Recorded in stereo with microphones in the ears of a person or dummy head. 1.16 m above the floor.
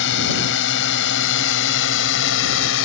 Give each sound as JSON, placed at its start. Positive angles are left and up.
{"t": 0.0, "sound": "a drone", "side_deg": 65}